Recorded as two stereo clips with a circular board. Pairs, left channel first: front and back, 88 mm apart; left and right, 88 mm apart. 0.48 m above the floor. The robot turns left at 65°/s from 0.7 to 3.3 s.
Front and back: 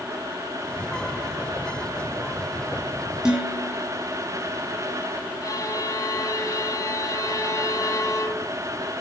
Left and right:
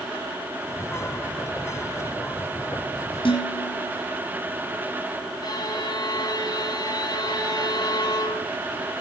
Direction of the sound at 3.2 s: 100° left.